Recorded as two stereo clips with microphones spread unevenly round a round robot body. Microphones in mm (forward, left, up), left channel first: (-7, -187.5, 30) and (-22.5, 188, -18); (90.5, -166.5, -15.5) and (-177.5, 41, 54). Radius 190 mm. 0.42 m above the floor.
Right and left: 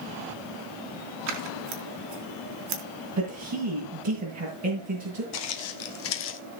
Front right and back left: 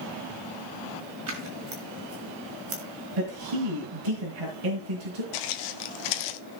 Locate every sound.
1.3 s scissors: 85° left, 3.5 m
3.2 s a man speaking: 140° left, 6.5 m
5.3 s footsteps: 40° right, 1.8 m; by 6.4 s 30° right, 1.2 m